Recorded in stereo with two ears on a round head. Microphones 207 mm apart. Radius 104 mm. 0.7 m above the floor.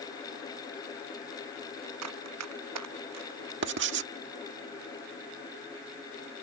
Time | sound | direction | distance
2.0 | running footsteps | 85° right | ?
3.6 | writing | 55° right (ahead or behind) | ?